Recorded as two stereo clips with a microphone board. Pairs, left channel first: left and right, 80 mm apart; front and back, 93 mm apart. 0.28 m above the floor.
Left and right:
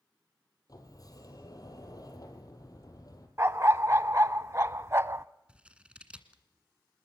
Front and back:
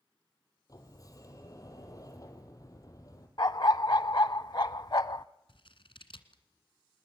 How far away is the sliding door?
About 3.5 m.